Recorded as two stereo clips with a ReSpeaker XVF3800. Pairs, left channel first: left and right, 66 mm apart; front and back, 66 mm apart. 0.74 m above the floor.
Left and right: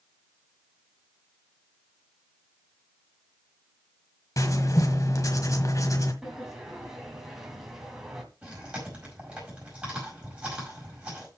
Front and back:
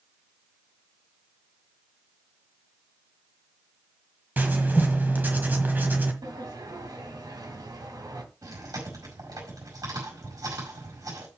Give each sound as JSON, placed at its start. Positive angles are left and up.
{"t": 4.4, "sound": "writing", "azimuth_deg": 120, "distance_m": 1.6}
{"t": 6.2, "sound": "a sliding door", "azimuth_deg": -175, "distance_m": 2.0}
{"t": 8.4, "sound": "chewing", "azimuth_deg": -165, "distance_m": 5.0}